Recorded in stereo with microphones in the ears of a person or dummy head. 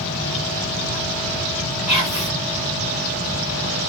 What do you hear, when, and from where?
1.9 s whispering: 35° left (ahead or behind), 2.5 m